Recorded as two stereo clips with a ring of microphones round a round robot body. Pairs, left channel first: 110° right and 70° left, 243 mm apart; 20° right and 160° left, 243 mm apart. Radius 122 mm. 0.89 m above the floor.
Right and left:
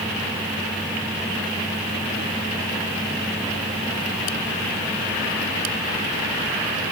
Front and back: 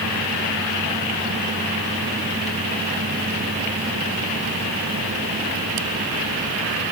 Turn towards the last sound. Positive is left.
No sound to turn to.